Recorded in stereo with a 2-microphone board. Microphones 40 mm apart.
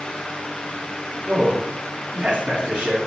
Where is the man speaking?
35° right (ahead or behind), 1.3 m.